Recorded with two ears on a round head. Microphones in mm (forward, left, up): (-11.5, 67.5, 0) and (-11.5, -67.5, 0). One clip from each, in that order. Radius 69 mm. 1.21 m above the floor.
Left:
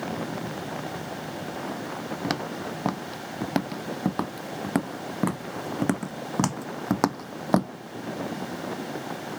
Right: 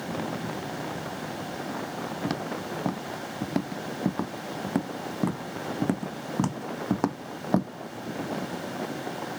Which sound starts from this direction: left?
Footsteps, at 2.2 s.